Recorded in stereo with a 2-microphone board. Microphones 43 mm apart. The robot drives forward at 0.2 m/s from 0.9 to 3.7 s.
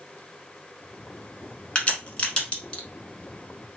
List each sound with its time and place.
1.8 s a crack: 25° left (ahead or behind), 1.0 m